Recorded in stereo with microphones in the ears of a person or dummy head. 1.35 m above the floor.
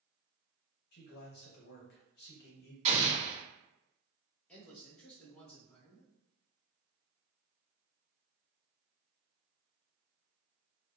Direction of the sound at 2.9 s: 35° right (ahead or behind).